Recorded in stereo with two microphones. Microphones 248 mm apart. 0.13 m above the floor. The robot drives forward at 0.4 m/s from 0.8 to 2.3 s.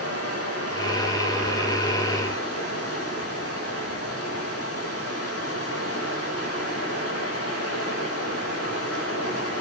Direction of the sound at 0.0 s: 75° left (ahead or behind).